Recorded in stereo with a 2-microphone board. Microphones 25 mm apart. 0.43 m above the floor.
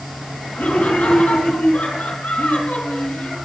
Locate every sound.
0.6 s laughter: 75° left (ahead or behind), 4 m